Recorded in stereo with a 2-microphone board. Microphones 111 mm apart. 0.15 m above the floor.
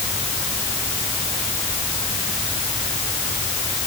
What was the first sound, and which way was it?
Only background noise.